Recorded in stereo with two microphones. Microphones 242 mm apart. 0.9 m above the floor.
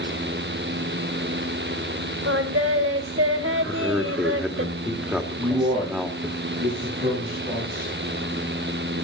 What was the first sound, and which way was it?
Singing, 65° right (ahead or behind).